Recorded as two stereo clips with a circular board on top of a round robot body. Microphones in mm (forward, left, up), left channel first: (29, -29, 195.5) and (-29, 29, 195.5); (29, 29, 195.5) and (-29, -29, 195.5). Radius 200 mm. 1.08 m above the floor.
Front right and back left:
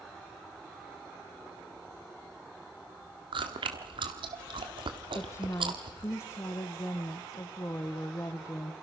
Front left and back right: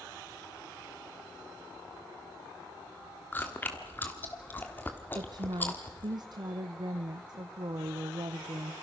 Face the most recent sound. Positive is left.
turn(degrees=-100)